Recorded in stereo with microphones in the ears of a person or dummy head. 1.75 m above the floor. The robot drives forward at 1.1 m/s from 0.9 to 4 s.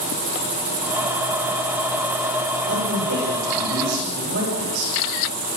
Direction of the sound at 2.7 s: 60° right (ahead or behind).